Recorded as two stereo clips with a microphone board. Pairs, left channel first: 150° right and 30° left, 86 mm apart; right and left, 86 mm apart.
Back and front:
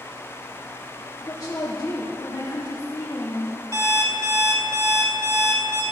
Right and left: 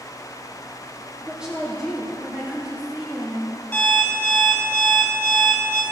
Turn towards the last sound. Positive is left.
turn(degrees=-15)